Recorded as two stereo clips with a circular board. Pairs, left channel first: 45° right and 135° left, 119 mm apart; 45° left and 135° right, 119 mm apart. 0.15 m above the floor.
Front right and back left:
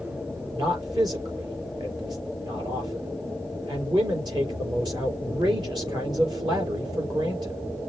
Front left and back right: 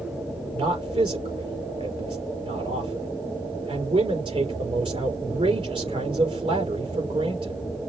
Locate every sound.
0.5 s a man speaking: 175° right, 3.5 m